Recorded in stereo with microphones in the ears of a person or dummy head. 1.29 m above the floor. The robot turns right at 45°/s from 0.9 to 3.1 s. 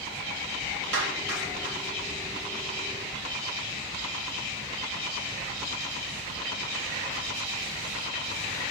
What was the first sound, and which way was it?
A clap, 65° right (ahead or behind).